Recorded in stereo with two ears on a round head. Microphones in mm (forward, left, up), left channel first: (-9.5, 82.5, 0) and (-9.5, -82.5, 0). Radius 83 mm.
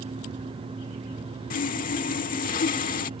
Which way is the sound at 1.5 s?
45° left (ahead or behind).